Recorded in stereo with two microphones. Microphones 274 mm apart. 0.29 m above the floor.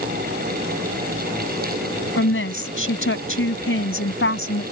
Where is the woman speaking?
50° left (ahead or behind).